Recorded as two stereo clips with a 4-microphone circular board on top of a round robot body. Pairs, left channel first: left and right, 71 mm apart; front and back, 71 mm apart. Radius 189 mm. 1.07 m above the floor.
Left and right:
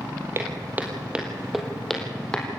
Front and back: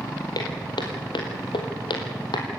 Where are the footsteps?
35° right, 2.5 m; by 2.5 s 15° left, 3.5 m.